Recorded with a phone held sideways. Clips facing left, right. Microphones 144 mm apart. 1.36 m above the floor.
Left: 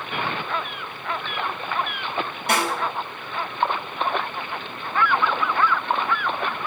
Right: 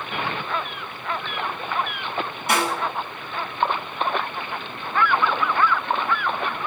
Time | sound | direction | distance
2.5 | a snare drum | 65° left (ahead or behind) | 6.5 m